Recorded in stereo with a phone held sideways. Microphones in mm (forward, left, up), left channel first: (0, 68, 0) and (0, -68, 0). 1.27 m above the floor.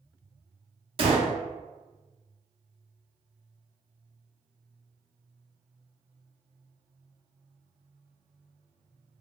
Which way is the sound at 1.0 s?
40° right (ahead or behind).